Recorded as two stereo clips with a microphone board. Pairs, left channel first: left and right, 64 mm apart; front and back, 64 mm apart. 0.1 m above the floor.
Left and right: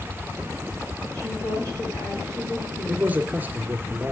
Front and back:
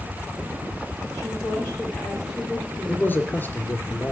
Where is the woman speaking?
100° left, 7.5 m.